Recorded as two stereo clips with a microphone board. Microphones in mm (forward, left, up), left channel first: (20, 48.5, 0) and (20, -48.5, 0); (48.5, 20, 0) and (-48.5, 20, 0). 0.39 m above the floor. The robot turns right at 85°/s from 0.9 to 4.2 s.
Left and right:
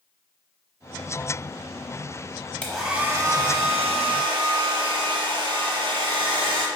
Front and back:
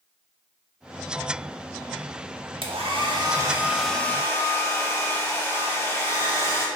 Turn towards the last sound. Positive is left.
turn(degrees=-60)